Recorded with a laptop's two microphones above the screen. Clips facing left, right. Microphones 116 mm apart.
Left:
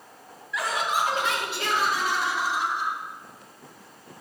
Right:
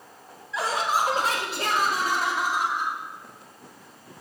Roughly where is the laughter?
Right.